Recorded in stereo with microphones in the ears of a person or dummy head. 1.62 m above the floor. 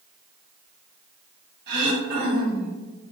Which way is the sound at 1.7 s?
55° right (ahead or behind).